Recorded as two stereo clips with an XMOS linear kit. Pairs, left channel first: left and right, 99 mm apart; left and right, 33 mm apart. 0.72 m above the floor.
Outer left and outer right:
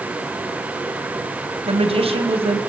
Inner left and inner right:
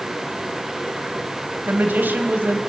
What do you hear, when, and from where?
1.7 s a woman speaking: 80° right, 3.5 m